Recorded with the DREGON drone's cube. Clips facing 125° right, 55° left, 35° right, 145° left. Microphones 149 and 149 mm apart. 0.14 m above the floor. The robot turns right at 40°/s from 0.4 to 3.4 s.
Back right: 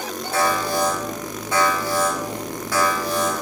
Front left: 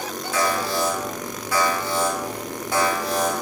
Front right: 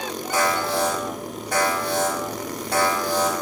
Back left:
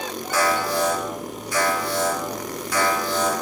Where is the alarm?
105° right, 5.5 m; by 3.4 s 15° left, 5.5 m.